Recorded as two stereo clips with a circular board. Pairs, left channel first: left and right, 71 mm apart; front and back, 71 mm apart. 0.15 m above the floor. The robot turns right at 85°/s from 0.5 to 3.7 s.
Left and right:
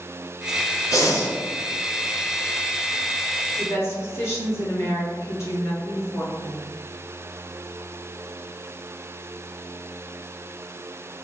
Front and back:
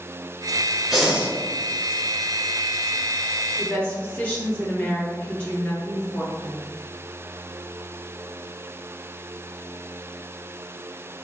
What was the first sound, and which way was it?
Breathing, 95° left.